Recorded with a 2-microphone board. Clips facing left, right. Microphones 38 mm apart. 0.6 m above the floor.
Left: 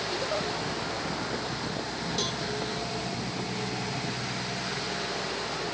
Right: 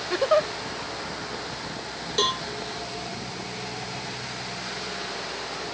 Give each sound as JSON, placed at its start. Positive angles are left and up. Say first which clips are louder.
{"t": 0.1, "sound": "a giggle", "louder": "right 12 dB", "side_deg": -70}
{"t": 2.2, "sound": "a cowbell", "louder": "right 11 dB", "side_deg": -55}